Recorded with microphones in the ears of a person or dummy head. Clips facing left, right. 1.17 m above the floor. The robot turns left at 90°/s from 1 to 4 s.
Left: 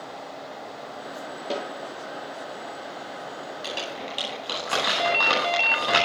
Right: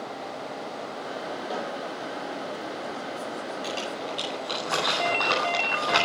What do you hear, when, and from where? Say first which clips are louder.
1.5 s a snare drum: left 4 dB; 35° left (ahead or behind), 9 m; by 1.8 s 10° left (ahead or behind), 9 m
3.6 s crumpling: right 2 dB; 5° left (ahead or behind), 10 m; by 6.0 s 40° left (ahead or behind), 10 m
5.0 s a ringtone: left 3 dB; 20° left (ahead or behind), 2 m